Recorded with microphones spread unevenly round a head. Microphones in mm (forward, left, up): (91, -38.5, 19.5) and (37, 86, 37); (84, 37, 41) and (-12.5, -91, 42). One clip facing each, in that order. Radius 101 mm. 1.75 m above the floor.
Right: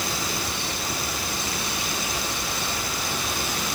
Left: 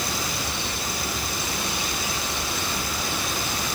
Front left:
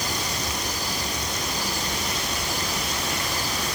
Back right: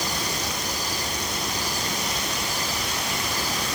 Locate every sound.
Only background noise.